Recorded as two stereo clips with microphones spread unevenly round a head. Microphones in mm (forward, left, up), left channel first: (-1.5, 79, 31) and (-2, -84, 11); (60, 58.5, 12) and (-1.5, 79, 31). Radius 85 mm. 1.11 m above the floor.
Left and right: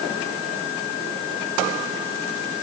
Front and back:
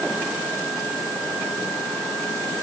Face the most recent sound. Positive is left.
No sound to turn to.